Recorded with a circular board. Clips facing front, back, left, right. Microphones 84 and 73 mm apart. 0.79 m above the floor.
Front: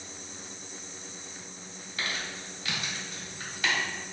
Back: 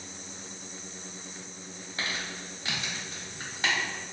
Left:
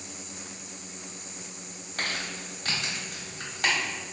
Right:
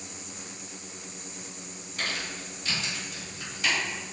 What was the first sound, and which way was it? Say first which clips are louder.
Crumpling: even, left 1 dB; 120° left.